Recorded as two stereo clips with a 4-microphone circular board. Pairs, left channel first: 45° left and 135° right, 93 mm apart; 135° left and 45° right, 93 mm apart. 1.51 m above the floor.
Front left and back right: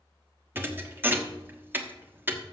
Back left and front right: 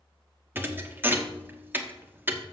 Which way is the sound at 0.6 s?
85° right.